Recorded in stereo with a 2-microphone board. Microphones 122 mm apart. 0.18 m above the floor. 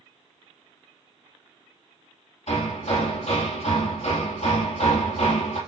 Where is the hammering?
65° left (ahead or behind), 2.5 m.